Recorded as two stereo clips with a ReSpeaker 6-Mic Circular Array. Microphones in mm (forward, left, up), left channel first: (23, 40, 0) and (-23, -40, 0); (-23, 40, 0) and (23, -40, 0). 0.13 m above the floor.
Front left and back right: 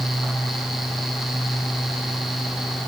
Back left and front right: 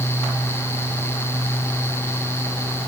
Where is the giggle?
No giggle in this recording.